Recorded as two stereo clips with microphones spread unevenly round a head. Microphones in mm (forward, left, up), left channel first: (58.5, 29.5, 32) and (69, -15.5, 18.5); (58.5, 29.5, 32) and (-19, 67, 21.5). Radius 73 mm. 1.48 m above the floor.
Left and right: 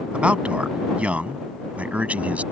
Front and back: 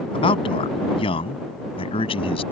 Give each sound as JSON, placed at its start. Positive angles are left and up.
{"t": 0.1, "sound": "a man speaking", "azimuth_deg": -10}